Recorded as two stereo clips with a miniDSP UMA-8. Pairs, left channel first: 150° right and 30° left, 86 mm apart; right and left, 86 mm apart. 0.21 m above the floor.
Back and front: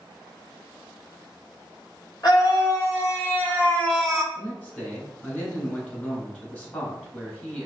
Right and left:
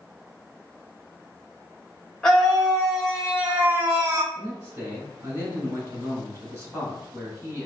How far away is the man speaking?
About 2.5 m.